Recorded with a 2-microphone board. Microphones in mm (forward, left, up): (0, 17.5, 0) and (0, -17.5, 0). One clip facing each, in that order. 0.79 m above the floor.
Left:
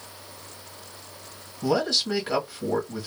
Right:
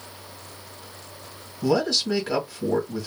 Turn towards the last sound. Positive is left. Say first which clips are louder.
# right 2 dB
turn(degrees=-5)  # may be behind; listen again after turning